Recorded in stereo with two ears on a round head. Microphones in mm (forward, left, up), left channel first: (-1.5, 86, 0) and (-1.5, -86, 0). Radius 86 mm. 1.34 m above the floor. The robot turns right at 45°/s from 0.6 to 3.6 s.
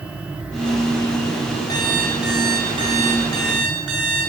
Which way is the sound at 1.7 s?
160° left.